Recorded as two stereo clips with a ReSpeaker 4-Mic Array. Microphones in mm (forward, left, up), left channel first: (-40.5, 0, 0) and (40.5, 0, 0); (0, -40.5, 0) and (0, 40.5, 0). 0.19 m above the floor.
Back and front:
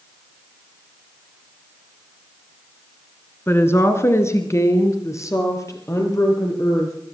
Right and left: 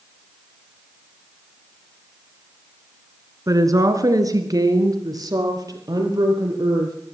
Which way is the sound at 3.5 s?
125° left.